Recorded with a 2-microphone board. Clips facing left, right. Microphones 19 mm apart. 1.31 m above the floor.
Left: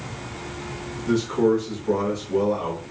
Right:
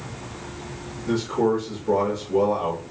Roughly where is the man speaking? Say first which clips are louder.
Left 2 dB; centre.